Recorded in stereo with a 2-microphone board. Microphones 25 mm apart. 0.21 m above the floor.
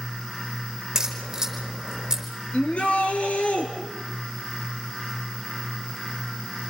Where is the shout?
55° left (ahead or behind), 4 m.